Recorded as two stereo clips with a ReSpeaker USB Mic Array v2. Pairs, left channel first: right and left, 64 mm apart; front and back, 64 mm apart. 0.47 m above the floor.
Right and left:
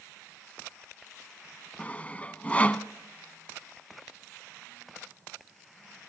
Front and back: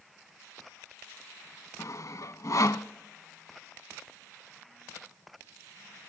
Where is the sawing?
25° right, 0.8 m.